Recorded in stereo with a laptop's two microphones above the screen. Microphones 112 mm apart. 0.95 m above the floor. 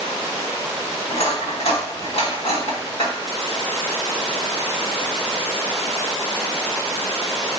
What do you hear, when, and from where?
1.1 s cutlery clinking: 60° left (ahead or behind), 1.7 m